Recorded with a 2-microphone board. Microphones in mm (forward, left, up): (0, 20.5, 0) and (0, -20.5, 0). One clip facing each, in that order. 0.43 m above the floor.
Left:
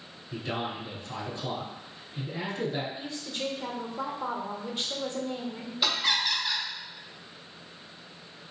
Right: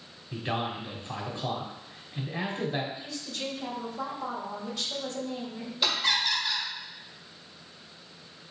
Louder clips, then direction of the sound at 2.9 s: Left 2 dB; 30° left (ahead or behind).